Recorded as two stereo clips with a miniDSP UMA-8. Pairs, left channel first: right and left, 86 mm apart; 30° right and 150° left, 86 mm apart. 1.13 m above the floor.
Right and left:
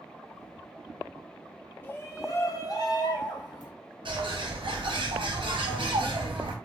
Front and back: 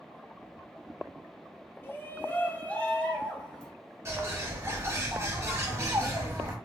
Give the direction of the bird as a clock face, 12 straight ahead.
9 o'clock.